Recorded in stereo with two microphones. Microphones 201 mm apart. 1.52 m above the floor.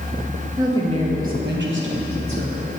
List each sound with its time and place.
0.6 s a woman speaking: 15° right (ahead or behind), 1.8 m; by 2.7 s 70° right (ahead or behind), 2 m